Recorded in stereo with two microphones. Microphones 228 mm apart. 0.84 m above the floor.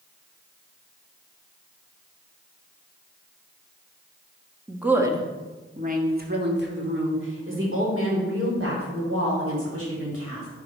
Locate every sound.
4.7 s a woman speaking: centre (ahead or behind), 1.1 m; by 10.5 s 70° right (ahead or behind), 4 m